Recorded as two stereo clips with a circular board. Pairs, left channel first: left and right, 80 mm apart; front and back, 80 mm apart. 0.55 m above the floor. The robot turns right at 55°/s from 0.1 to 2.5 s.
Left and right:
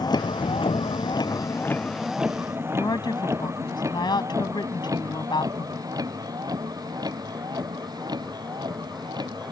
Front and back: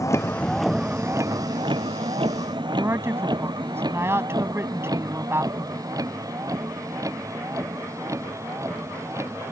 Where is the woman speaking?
120° left.